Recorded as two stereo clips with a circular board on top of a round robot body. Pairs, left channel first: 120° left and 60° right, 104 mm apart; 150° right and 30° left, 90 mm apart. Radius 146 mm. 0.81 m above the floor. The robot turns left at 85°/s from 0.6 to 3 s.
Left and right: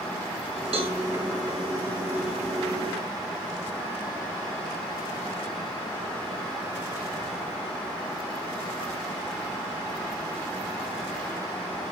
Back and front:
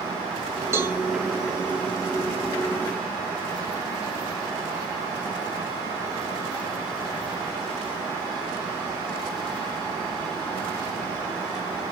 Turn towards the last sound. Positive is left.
turn(degrees=135)